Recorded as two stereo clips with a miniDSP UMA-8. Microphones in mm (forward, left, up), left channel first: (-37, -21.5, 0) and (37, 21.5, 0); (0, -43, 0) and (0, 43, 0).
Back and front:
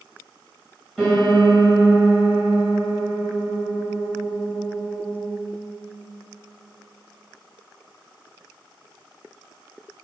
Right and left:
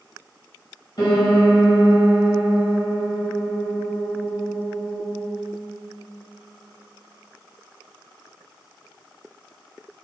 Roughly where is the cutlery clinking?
I don't hear cutlery clinking.